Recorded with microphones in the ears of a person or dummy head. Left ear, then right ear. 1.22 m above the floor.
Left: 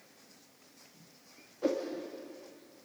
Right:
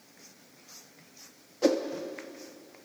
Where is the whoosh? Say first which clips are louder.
Right 6 dB; 80° right, 2.5 m.